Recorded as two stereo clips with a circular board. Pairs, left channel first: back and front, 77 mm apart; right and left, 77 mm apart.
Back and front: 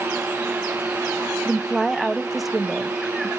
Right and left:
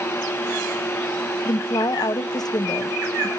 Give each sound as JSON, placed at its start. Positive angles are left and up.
{"t": 1.4, "sound": "a woman speaking", "azimuth_deg": -90, "distance_m": 0.6}